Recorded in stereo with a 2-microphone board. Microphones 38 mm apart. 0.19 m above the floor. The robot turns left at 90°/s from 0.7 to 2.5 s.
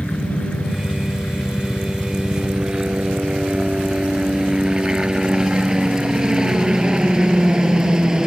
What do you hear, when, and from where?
0.0 s a helicopter: 35° left (ahead or behind); by 8.3 s 15° right (ahead or behind)